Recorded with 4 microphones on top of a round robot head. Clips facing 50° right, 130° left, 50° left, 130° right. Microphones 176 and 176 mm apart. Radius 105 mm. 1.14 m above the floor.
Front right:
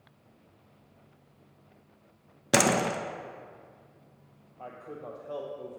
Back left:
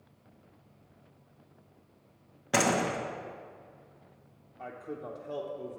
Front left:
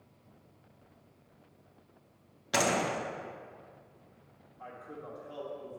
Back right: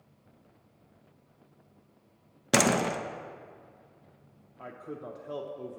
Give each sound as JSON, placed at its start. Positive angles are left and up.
{"t": 2.5, "sound": "a door slam", "azimuth_deg": -100, "distance_m": 0.7}
{"t": 4.6, "sound": "a man speaking", "azimuth_deg": -145, "distance_m": 0.8}